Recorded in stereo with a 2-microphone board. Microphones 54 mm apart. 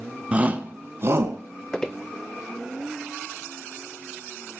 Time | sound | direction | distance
0.3 | a shout | 25° right (ahead or behind) | 1.4 m
1.7 | footsteps | 15° left (ahead or behind) | 0.8 m